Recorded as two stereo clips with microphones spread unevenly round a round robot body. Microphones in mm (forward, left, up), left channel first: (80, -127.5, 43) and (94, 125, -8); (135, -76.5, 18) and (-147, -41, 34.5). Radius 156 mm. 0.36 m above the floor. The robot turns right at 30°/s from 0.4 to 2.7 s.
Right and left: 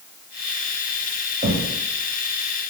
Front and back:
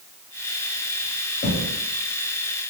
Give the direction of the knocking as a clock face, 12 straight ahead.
11 o'clock.